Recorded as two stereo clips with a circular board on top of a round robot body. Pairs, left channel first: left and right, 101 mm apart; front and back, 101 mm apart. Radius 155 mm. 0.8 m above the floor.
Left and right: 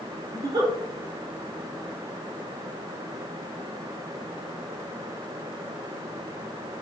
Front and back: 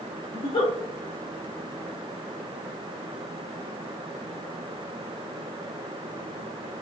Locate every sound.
0.3 s a giggle: 35° right, 0.9 m